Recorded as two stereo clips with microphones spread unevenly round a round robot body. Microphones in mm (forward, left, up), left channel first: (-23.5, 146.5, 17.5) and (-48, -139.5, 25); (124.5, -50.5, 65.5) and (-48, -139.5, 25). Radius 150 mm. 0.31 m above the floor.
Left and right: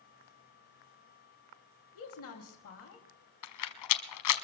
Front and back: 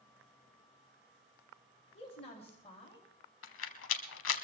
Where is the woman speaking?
95° left, 2.0 m.